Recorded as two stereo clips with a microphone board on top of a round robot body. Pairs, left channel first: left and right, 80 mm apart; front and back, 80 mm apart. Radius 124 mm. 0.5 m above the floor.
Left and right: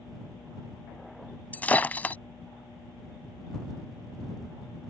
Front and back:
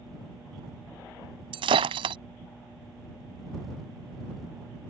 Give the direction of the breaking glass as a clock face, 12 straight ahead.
7 o'clock.